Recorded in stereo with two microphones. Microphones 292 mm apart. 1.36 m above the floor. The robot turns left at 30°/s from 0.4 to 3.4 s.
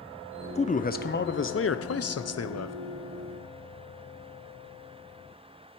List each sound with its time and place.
0.6 s a man speaking: 155° left, 0.6 m; by 2.8 s 85° left, 0.6 m